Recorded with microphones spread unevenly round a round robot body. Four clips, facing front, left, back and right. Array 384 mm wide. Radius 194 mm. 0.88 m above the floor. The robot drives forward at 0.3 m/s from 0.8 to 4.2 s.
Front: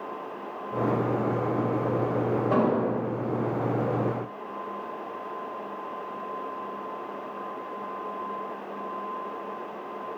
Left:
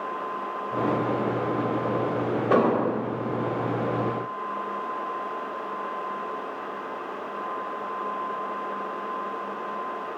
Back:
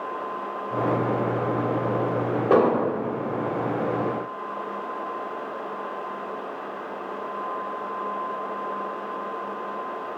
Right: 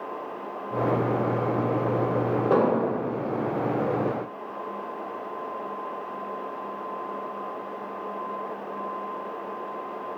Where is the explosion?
160° right, 1.9 m.